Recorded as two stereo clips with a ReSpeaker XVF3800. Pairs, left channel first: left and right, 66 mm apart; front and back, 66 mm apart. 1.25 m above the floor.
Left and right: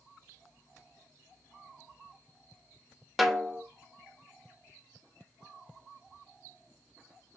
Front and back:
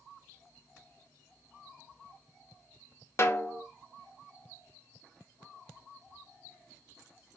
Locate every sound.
3.2 s a snare drum: straight ahead, 1.0 m